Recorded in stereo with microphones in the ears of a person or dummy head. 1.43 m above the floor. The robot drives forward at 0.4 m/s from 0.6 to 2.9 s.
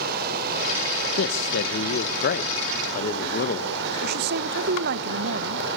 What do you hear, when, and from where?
0.0 s running water: 60° right (ahead or behind), 3 m; by 5.8 s 70° right (ahead or behind), 2.5 m
1.2 s a man speaking: 70° left (ahead or behind), 1.6 m; by 3.7 s 50° left (ahead or behind), 2.0 m
4.0 s a woman speaking: 55° right (ahead or behind), 1.3 m